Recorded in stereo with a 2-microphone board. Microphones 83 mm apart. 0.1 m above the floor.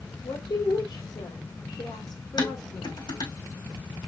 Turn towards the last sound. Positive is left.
turn(degrees=75)  # may be behind; listen again after turning